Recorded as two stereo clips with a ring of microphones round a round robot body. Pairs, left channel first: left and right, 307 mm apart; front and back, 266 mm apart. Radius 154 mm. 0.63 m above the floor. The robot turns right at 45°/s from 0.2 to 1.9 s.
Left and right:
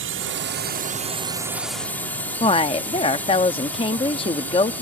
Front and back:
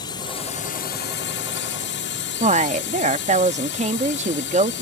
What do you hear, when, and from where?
0.0 s a drone: 70° right; by 4.8 s 10° left
2.4 s a woman speaking: 145° left